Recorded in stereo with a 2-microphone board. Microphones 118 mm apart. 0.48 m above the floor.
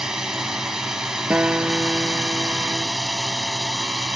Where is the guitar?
15° right (ahead or behind).